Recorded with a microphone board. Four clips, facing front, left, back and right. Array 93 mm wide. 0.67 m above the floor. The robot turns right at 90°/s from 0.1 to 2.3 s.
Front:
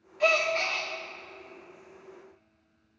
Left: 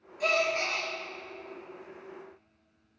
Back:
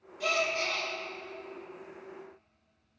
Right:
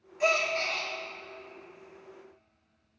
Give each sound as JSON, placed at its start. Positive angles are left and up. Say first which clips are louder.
{"t": 0.2, "sound": "a gasp", "louder": "even, front 5 dB", "azimuth_deg": -25, "distance_m": 1.7}